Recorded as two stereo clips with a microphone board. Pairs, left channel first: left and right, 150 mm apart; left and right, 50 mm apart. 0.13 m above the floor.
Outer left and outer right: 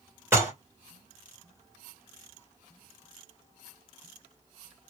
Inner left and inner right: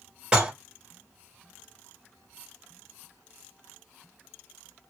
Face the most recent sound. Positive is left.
turn(degrees=-15)  # may be behind; listen again after turning